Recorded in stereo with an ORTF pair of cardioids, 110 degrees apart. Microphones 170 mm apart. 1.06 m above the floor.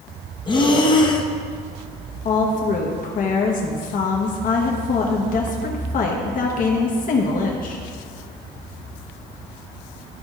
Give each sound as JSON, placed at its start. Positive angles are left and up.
{"t": 0.5, "sound": "breathing", "azimuth_deg": 25, "distance_m": 0.8}
{"t": 2.2, "sound": "a woman speaking", "azimuth_deg": 55, "distance_m": 1.1}